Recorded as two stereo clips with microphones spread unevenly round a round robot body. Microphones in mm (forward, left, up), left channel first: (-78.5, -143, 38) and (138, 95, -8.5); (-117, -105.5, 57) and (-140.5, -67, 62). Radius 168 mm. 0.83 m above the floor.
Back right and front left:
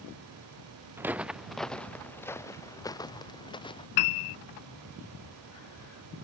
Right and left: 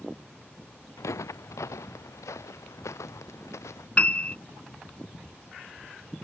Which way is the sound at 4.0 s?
120° right.